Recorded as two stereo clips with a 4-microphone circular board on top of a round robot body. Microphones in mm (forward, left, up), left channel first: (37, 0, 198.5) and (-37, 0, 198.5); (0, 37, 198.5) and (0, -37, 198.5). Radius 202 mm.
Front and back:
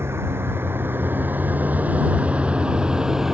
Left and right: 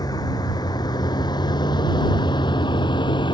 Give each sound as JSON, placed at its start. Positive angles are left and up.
{"t": 0.0, "sound": "a vehicle", "azimuth_deg": 120}